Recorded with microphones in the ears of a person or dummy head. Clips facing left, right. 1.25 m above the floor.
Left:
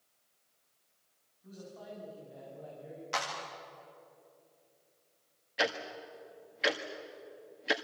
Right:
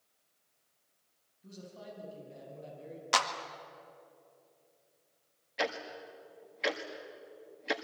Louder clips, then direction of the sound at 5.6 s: Left 1 dB; centre (ahead or behind).